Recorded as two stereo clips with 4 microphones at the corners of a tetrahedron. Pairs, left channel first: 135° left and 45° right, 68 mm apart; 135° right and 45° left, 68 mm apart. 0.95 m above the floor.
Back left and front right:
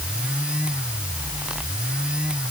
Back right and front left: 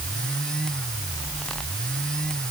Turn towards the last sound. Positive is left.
No sound to turn to.